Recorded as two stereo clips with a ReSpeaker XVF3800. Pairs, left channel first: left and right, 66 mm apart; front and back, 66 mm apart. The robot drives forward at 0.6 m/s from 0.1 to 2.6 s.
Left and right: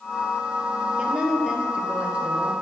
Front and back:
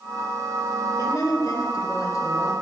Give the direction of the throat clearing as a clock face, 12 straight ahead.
I don't hear throat clearing.